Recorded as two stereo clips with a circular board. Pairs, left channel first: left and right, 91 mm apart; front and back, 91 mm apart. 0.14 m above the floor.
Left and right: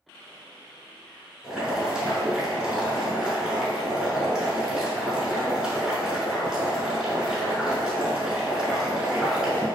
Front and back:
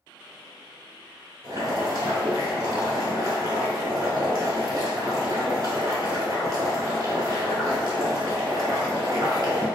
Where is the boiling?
170° right, 0.9 m.